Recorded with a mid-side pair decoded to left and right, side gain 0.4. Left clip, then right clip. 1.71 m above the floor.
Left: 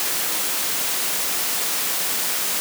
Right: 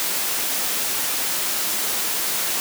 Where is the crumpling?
I don't hear crumpling.